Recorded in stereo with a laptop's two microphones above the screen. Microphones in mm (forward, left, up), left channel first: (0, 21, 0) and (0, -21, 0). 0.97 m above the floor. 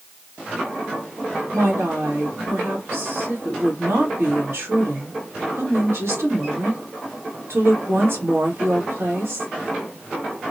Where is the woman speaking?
70° right (ahead or behind), 1.9 m.